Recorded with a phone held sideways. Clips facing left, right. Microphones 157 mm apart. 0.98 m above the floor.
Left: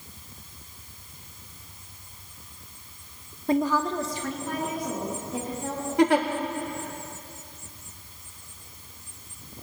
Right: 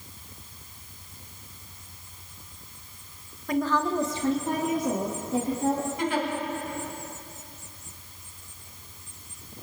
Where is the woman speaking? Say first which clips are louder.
Left 1 dB; 30° left (ahead or behind), 0.8 m; by 5.9 s 50° right (ahead or behind), 3.5 m.